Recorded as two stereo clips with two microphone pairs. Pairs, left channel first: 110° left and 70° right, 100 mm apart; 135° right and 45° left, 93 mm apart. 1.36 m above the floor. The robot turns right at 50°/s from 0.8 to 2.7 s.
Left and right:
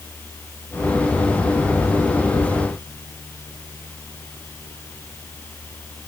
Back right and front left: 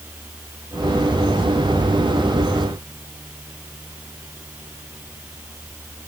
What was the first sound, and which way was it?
Only background noise.